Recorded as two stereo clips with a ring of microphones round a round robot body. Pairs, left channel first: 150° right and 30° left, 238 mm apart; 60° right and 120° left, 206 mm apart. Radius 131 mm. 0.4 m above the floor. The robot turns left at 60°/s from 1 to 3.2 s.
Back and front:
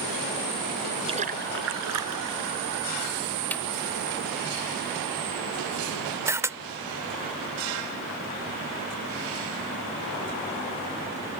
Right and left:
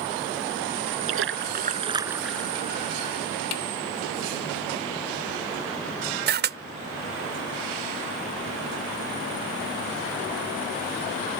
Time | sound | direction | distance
1.1 | a splash | 100° left | ?
3.5 | a snare drum | 65° right | ?
6.3 | a camera shutter | 105° left | ?